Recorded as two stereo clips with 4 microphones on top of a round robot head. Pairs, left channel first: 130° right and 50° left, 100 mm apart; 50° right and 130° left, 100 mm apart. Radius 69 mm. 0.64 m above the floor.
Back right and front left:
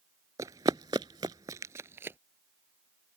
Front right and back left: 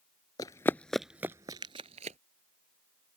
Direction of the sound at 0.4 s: 5° right.